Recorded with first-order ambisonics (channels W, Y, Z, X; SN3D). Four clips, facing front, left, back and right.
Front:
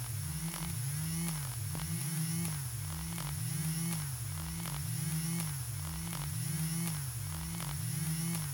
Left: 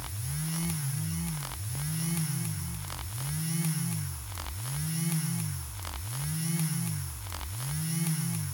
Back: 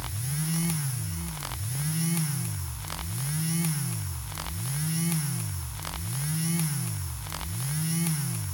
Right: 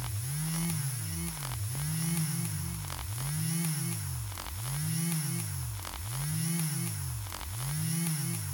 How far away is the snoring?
I don't hear snoring.